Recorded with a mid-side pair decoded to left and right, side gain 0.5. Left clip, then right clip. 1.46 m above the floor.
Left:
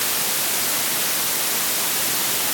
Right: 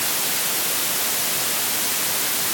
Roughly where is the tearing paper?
I don't hear tearing paper.